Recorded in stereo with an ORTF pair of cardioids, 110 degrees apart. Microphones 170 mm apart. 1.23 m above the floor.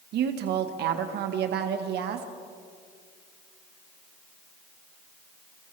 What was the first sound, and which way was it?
A woman speaking, 70° right.